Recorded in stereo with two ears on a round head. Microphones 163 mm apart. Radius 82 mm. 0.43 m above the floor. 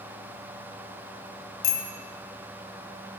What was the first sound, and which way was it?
A bicycle bell, 60° left (ahead or behind).